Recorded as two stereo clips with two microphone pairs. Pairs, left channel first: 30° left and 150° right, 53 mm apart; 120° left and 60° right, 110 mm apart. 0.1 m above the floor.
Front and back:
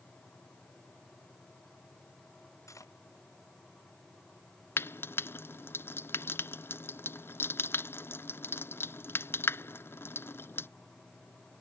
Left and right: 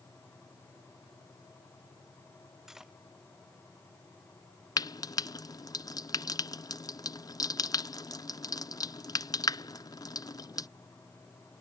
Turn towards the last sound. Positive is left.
turn(degrees=70)